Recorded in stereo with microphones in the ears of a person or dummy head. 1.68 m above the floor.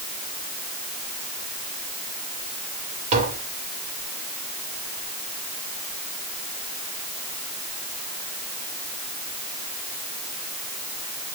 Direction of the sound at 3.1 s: 45° right (ahead or behind).